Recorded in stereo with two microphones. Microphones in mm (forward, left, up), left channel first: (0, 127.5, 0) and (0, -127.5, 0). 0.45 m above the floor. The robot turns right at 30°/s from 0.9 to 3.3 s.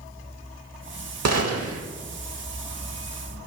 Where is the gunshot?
75° right (ahead or behind), 0.8 m; by 1.8 s 65° right (ahead or behind), 0.8 m.